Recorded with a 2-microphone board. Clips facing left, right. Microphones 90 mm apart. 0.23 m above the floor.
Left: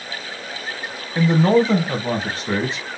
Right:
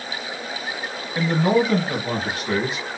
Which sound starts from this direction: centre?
A man speaking, at 1.1 s.